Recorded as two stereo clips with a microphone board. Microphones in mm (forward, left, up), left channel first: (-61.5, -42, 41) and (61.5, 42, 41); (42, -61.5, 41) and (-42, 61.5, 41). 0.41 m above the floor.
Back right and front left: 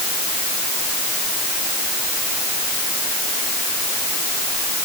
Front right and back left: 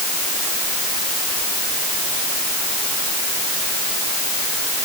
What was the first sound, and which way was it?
Only background noise.